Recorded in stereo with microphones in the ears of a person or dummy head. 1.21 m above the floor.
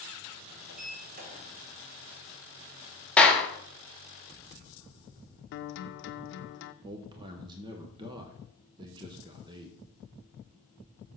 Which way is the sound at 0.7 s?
45° right (ahead or behind).